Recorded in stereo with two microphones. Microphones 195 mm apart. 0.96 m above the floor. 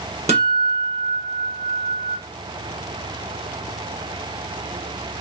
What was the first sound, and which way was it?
A guitar, 30° right (ahead or behind).